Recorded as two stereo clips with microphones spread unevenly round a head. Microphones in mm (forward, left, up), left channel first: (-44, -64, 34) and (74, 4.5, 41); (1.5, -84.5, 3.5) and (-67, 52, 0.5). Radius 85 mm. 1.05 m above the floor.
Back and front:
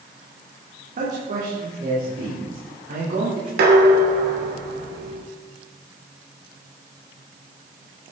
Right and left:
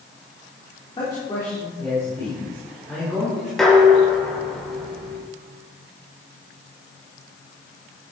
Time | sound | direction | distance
1.0 | a man speaking | 5° left | 3.5 m
3.6 | dishes clattering | 25° left | 2.5 m